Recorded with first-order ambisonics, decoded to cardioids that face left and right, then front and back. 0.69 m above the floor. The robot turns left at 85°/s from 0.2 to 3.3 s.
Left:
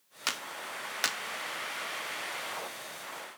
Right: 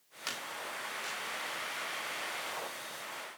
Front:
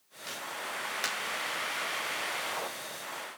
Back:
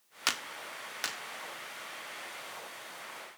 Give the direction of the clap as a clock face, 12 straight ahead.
7 o'clock.